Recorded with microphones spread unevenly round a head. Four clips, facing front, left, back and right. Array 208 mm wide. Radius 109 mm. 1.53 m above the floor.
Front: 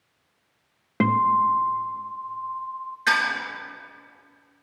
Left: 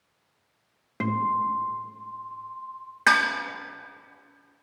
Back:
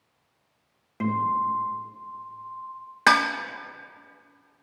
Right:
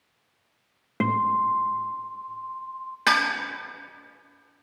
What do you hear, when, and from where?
1.0 s a guitar: 20° right, 0.6 m
3.1 s dishes clattering: straight behind, 0.9 m